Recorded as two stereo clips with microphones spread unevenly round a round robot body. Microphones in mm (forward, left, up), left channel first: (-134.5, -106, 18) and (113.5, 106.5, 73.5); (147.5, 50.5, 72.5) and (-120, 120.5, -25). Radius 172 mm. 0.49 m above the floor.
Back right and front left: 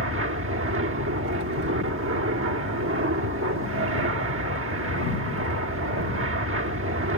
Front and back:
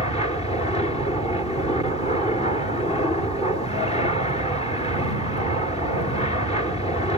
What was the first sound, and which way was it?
An aircraft, 70° left.